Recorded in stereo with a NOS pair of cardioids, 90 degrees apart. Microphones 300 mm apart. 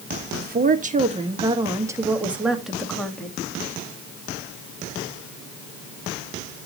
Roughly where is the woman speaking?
Ahead right.